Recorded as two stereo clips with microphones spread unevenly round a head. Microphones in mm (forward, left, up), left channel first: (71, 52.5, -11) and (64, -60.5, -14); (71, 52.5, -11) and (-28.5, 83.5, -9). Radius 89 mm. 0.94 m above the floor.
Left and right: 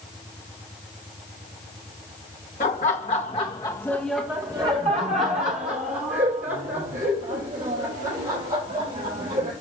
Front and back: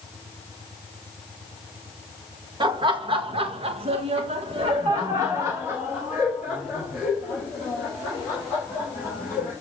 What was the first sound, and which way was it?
Laughter, 120° left.